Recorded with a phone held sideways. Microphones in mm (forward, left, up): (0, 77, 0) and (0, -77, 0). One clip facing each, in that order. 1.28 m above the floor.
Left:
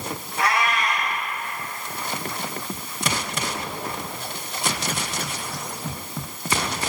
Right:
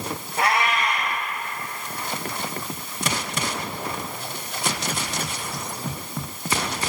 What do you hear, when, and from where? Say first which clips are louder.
0.4 s a cat meowing: right 1 dB; 70° right (ahead or behind), 3.5 m